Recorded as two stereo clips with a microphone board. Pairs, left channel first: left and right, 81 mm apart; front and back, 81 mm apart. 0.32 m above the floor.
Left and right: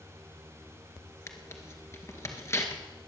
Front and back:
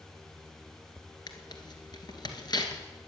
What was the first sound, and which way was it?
Tearing paper, 30° left.